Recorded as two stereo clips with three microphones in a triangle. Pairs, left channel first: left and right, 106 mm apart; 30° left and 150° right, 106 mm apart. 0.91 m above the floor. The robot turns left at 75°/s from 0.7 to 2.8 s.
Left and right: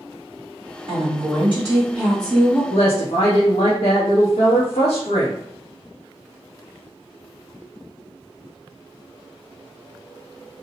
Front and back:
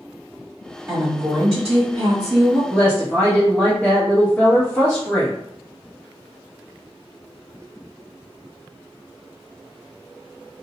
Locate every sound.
0.9 s a woman speaking: 85° right, 1.8 m; by 2.6 s 145° left, 1.8 m
2.7 s a woman speaking: 115° left, 0.7 m; by 5.3 s 105° left, 0.7 m